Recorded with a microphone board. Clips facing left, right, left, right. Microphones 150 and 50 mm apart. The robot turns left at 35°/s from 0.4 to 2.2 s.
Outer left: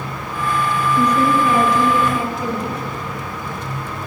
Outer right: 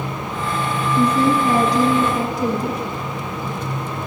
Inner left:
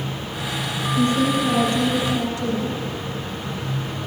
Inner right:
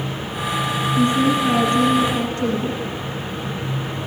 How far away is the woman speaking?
About 1.8 m.